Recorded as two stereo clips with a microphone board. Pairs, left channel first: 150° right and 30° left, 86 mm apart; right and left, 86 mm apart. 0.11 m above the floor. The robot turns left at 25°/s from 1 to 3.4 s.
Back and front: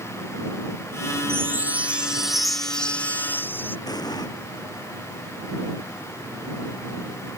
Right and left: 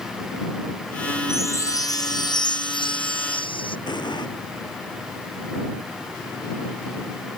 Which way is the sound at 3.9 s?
115° right.